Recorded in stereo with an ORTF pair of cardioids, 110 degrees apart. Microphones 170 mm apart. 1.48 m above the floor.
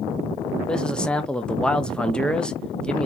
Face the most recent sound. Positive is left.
turn(degrees=5)